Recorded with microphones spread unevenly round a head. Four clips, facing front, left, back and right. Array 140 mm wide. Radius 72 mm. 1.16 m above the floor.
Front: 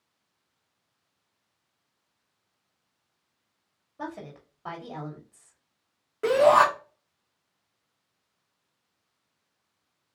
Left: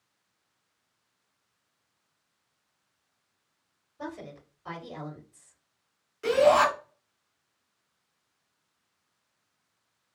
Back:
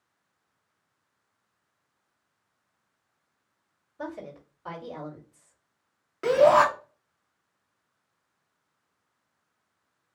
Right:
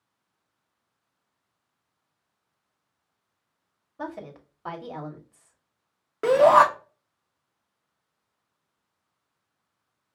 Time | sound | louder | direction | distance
4.0 | a woman speaking | right 3 dB, even | 65° right | 2 m
6.2 | a shout | right 5 dB, even | 85° right | 1.7 m